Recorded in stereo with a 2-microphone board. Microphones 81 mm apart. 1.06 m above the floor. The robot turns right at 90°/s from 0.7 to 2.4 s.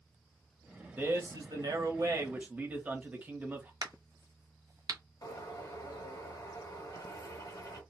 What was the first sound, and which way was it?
A man speaking, 155° right.